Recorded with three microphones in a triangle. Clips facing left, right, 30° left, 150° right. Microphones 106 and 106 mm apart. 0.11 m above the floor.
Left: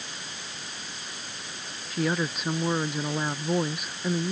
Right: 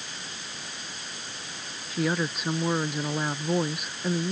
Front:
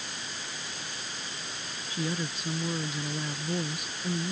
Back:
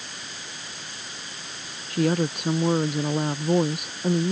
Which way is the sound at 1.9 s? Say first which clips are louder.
Even, back 11 dB; straight behind.